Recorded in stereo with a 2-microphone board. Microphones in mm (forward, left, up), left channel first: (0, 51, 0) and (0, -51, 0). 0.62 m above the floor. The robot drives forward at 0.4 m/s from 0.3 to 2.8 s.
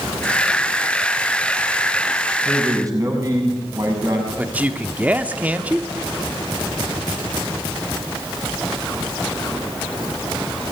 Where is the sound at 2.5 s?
35° right (ahead or behind), 6 m.